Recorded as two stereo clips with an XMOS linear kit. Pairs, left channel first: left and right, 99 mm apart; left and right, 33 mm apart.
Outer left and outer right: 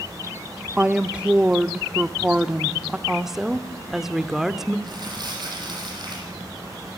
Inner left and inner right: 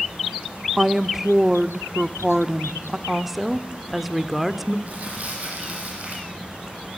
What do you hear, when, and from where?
0.8 s a woman speaking: 10° right (ahead or behind), 0.7 m
3.1 s a woman speaking: 5° right (ahead or behind), 1.1 m
4.9 s crumpling: 50° right (ahead or behind), 9 m